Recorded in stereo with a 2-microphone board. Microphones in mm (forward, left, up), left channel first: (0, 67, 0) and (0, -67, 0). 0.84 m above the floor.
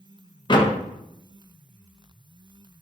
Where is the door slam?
35° left (ahead or behind), 0.5 m.